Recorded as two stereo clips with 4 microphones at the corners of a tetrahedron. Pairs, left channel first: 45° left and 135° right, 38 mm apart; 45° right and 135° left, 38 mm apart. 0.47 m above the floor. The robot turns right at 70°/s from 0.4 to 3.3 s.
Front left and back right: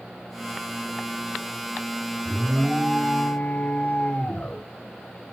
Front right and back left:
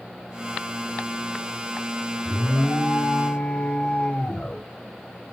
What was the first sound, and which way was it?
An alarm, 70° right.